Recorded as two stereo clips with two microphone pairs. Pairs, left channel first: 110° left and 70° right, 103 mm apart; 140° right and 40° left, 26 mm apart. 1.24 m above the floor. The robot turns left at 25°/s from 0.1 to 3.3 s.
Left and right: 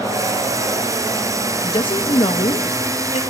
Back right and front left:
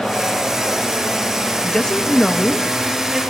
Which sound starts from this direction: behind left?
A woman speaking, at 1.6 s.